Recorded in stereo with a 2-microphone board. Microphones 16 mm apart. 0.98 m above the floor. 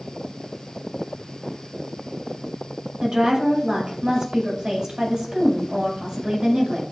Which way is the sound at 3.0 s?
65° right (ahead or behind).